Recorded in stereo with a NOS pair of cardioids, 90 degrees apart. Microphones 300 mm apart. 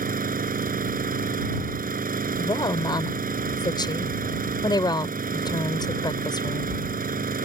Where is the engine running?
30° right.